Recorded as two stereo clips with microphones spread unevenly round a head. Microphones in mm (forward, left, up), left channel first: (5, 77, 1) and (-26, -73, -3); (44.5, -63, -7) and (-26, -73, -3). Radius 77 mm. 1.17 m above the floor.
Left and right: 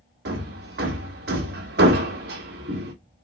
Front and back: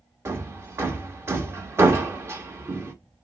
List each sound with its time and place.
0.2 s hammering: 120° right, 1.4 m